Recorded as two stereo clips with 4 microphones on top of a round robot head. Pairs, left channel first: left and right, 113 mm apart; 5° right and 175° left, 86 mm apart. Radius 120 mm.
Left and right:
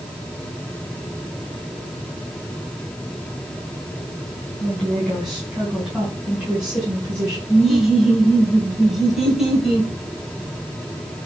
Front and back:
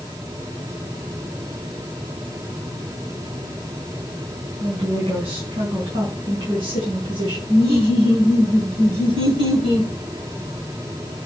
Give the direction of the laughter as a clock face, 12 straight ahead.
6 o'clock.